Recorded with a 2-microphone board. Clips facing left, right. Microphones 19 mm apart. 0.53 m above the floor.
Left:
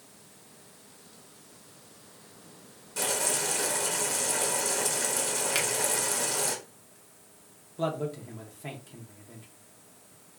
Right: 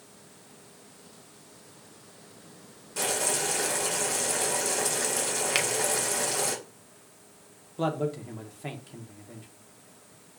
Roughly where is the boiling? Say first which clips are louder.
Right 1 dB; centre.